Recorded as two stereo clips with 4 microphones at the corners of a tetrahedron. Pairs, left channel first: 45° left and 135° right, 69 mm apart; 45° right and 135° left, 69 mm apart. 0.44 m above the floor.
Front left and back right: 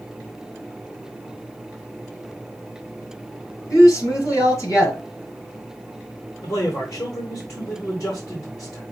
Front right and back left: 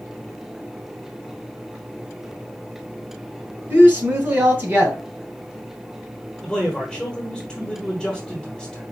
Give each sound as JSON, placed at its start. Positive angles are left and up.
{"t": 3.7, "sound": "a woman speaking", "azimuth_deg": 80, "distance_m": 2.0}
{"t": 6.4, "sound": "a man speaking", "azimuth_deg": 35, "distance_m": 1.2}